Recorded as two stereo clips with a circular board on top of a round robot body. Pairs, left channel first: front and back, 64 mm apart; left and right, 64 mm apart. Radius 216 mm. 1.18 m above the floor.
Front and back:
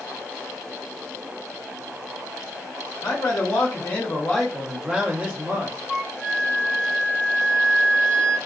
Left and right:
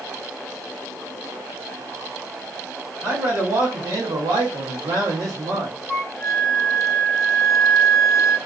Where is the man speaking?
40° right, 1.1 m; by 5.8 s 130° right, 1.1 m.